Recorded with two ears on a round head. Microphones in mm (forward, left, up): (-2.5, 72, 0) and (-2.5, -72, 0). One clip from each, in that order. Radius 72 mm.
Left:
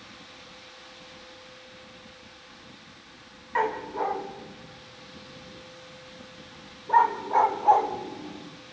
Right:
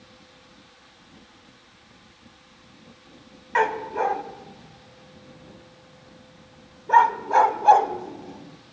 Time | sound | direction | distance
3.5 | a dog barking | 75° right (ahead or behind) | 1.1 m